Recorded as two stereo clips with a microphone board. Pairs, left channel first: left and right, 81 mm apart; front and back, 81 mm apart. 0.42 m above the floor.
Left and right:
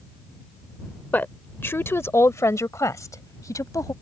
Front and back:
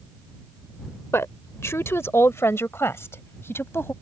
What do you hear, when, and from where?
1.1 s a woman speaking: 35° left; by 3.9 s 55° left